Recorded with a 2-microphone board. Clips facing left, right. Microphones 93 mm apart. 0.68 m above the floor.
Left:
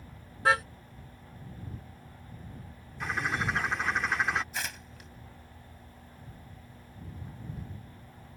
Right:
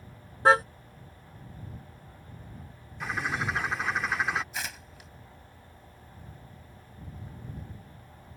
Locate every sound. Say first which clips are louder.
0.5 s a car horn: right 5 dB; 35° right (ahead or behind)
3.0 s a bird: even; centre (ahead or behind)
4.5 s tearing paper: even; centre (ahead or behind)